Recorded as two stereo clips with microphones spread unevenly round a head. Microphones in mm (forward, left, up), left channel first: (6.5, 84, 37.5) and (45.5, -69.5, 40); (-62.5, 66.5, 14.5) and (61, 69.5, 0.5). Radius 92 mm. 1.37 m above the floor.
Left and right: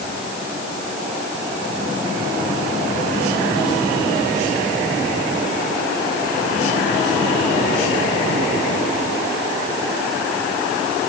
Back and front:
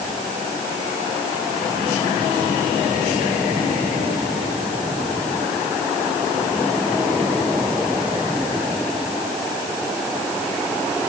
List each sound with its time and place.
Only background noise.